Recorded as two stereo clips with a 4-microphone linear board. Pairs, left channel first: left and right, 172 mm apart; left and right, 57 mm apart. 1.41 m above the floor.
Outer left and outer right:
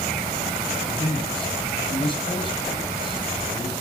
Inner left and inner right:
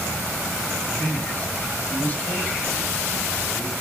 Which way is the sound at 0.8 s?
30° left (ahead or behind).